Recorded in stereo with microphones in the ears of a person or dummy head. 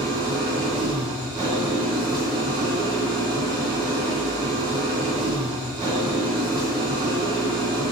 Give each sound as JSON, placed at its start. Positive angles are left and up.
{"t": 0.0, "sound": "an engine running", "side_deg": -25, "distance_m": 0.8}